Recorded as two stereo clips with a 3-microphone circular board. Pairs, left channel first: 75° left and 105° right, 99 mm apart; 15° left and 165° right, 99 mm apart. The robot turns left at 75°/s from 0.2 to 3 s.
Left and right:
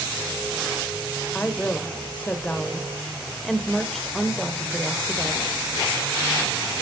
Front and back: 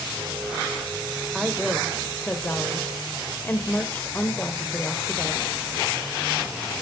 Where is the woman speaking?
120° left, 1.1 m; by 5.4 s 5° right, 1.1 m.